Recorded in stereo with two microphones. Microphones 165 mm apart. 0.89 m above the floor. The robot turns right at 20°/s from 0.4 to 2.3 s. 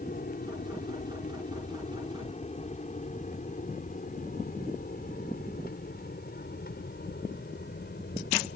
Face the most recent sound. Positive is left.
turn(degrees=65)  # may be behind; listen again after turning